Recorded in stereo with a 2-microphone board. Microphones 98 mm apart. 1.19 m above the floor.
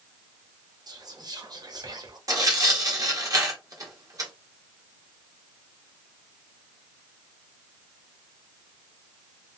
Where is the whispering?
50° right (ahead or behind), 0.8 m.